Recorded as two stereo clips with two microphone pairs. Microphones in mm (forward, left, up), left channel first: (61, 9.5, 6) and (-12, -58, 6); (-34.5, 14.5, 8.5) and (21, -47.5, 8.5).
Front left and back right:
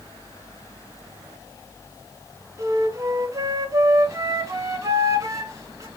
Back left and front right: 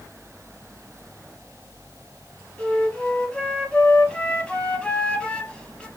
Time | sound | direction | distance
2.6 | a flute | 160° right | 0.6 m